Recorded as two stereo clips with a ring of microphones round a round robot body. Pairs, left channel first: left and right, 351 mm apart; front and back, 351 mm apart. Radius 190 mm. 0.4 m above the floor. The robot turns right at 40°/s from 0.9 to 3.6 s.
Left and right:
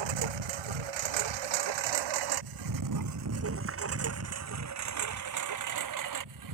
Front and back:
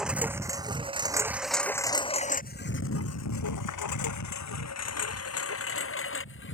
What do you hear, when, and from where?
0.0 s a lawn mower: 90° right; by 6.5 s 60° right